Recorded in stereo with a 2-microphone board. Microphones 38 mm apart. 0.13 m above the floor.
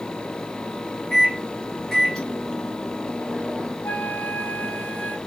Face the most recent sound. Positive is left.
turn(degrees=60)  # may be behind; listen again after turning